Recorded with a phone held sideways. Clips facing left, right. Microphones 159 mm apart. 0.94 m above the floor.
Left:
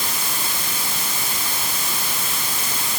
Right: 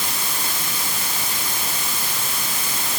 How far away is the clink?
I don't hear a clink.